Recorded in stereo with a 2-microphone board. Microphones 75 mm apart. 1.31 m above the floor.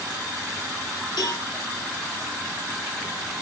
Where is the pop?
No pop in this recording.